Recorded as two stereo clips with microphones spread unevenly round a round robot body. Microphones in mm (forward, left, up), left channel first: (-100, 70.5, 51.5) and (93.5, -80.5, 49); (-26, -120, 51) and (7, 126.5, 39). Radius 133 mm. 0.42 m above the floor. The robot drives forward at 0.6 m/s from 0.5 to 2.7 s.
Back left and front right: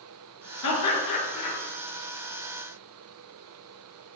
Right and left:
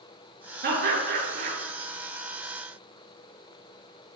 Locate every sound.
0.6 s laughter: 135° left, 7.5 m; by 1.6 s 140° left, 8 m